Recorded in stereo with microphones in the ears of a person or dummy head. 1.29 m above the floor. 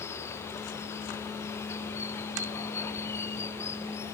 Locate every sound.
0.0 s running water: 10° left (ahead or behind)